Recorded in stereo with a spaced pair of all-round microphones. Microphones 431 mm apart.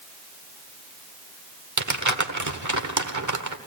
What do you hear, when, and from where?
1.8 s crumpling: 40° right (ahead or behind), 1.3 m